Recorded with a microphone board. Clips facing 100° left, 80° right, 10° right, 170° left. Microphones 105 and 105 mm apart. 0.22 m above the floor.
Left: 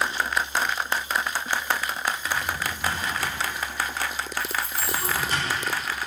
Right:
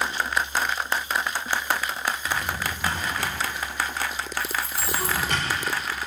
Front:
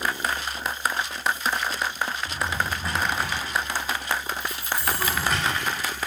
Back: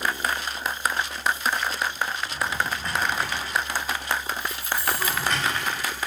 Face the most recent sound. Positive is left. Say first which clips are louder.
# even, even
turn(degrees=-165)